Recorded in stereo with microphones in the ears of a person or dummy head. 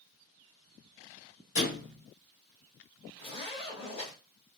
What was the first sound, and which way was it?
A thud, 55° left (ahead or behind).